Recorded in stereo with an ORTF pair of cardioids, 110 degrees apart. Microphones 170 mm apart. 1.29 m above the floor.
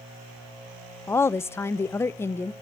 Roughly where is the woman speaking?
Ahead.